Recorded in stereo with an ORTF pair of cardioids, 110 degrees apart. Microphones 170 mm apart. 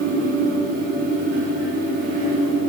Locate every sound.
0.0 s a fan: 55° right, 9.5 m